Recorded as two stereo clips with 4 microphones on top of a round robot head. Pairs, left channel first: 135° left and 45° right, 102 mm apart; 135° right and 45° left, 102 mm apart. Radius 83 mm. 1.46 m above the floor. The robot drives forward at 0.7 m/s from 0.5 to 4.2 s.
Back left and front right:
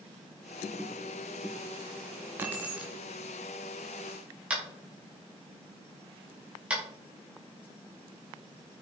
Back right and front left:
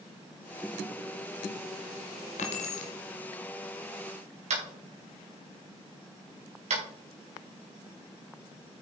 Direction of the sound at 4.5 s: 30° left.